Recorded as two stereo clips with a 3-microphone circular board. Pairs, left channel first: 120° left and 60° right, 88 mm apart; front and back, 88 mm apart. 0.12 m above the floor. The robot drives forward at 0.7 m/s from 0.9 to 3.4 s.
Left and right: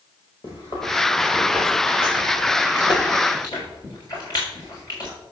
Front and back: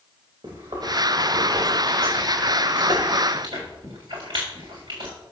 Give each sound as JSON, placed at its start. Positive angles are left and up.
{"t": 0.4, "sound": "chewing", "azimuth_deg": 160, "distance_m": 5.0}